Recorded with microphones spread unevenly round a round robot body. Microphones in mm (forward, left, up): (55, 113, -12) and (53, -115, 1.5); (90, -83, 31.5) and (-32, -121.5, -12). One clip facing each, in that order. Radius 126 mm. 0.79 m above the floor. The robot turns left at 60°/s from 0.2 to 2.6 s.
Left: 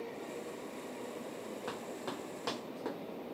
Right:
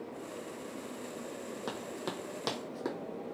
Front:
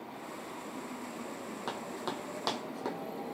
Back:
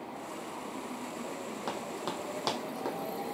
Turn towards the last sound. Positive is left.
turn(degrees=-60)